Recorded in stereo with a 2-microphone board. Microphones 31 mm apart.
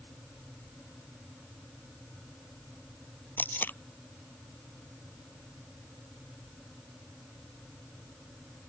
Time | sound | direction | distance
3.4 | tape being pulled | 75° left (ahead or behind) | ?